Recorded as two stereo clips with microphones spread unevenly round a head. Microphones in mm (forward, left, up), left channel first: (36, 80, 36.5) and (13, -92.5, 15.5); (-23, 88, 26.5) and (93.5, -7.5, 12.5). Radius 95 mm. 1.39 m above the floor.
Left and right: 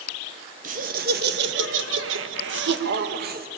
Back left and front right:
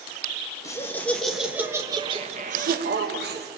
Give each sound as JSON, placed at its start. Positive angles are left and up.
{"t": 0.6, "sound": "laughter", "azimuth_deg": -145, "distance_m": 1.8}